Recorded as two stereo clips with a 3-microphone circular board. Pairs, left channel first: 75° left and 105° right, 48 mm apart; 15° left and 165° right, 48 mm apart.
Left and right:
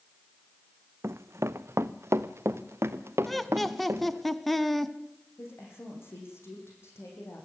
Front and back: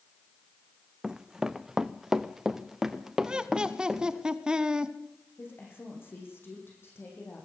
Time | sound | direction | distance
1.0 | running footsteps | 90° right | 0.6 m
3.2 | laughter | 160° left | 1.1 m
5.4 | a woman speaking | 50° left | 8 m